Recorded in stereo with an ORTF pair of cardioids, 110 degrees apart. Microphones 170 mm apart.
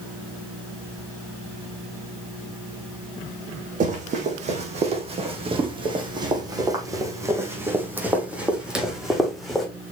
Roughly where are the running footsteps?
Ahead right.